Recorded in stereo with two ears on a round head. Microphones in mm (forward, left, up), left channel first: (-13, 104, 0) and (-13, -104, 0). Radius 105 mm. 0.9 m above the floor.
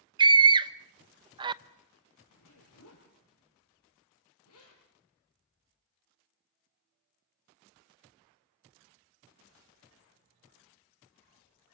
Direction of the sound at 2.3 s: 75° left (ahead or behind).